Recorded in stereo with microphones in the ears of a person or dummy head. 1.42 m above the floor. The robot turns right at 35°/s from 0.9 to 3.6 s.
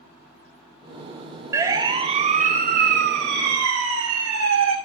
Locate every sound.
1.5 s a siren: 15° right (ahead or behind), 3.5 m; by 4.8 s 75° right (ahead or behind), 5 m